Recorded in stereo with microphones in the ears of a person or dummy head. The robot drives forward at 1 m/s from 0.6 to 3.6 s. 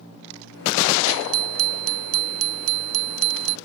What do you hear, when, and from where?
1.1 s a bicycle bell: 80° right; by 3.6 s 85° right